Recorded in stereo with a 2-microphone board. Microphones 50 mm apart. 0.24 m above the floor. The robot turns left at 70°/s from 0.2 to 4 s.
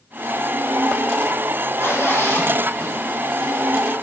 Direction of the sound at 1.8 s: 65° left (ahead or behind).